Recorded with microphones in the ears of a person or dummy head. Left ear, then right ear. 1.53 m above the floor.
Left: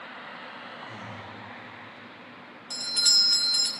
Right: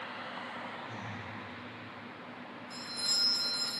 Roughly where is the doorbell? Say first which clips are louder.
Left 11 dB; left.